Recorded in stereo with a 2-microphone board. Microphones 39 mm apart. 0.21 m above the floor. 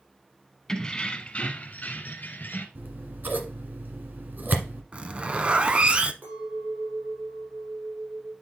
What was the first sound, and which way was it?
Keys jangling, 15° left (ahead or behind).